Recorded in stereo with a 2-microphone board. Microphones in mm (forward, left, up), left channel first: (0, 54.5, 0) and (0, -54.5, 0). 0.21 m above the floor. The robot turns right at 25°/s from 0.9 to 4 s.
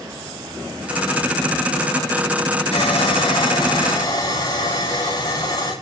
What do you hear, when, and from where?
2.7 s sawing: 105° left, 8 m; by 5.7 s 140° left, 8 m